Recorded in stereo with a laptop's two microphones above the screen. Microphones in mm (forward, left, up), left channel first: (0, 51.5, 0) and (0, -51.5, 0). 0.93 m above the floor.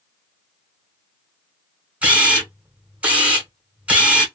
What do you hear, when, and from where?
2.0 s a camera shutter: 10° right (ahead or behind), 0.8 m